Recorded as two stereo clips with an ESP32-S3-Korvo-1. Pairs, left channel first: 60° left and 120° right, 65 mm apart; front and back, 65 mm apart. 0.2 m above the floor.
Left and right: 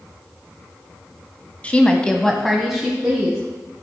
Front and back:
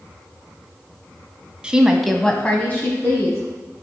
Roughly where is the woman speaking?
Behind left.